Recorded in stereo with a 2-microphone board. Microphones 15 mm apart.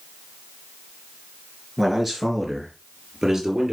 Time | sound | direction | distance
1.8 | a man speaking | 5° right (ahead or behind) | 3 m